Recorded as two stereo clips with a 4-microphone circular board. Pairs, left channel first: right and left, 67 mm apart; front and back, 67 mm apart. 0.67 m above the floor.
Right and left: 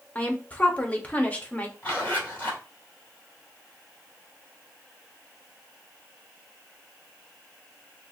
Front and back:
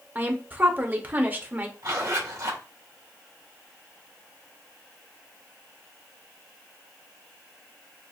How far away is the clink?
No clink in this recording.